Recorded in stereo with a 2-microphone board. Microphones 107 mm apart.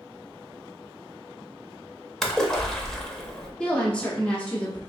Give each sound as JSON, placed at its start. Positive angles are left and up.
{"t": 2.2, "sound": "a splash", "side_deg": 5, "distance_m": 0.6}
{"t": 3.6, "sound": "a woman speaking", "side_deg": 10, "distance_m": 1.2}